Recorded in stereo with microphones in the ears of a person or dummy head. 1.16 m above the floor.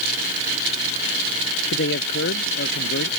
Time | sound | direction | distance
1.7 | a man speaking | 65° left (ahead or behind) | ?